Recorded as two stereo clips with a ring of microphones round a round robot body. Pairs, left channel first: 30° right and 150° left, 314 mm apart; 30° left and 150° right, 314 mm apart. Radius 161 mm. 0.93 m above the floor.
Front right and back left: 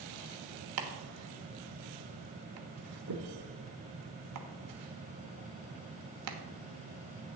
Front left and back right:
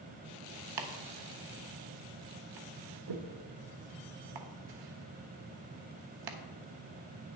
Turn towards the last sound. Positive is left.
turn(degrees=-170)